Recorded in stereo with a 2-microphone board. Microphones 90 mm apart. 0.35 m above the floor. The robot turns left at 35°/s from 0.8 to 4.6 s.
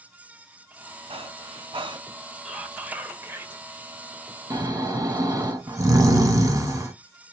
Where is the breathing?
95° right, 0.8 m; by 2.0 s 125° right, 0.8 m.